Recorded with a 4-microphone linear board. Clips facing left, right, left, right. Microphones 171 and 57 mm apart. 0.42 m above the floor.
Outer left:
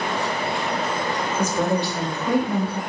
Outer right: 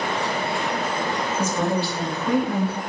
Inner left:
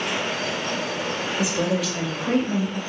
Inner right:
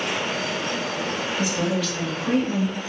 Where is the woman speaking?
10° left (ahead or behind), 1.5 m; by 2.8 s 35° left (ahead or behind), 1.6 m.